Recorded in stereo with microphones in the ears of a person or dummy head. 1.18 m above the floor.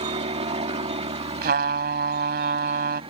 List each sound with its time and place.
0.0 s a helicopter: 25° right (ahead or behind)
1.4 s a trumpet: 60° right (ahead or behind)